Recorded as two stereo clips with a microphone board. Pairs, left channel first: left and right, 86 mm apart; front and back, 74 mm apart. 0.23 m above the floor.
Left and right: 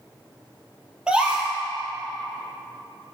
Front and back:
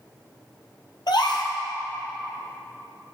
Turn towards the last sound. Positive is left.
turn(degrees=-10)